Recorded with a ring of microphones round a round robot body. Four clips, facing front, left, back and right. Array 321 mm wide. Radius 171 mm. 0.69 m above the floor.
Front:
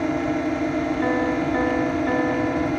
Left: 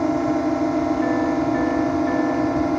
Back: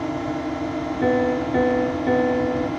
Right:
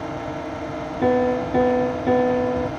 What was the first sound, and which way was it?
A drone, 70° left.